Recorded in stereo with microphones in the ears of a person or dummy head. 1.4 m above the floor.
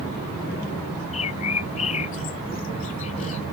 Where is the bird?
35° left (ahead or behind).